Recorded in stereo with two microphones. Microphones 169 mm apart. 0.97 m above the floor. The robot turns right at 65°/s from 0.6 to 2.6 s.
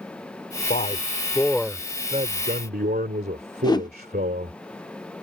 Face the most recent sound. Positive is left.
turn(degrees=25)  # may be behind; listen again after turning